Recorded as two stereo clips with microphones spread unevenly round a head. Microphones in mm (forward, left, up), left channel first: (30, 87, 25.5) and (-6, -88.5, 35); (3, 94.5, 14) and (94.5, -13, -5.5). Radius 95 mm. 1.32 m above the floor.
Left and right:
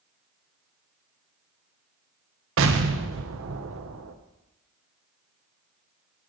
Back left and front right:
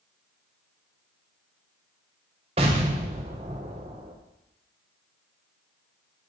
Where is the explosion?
110° right, 1.1 m.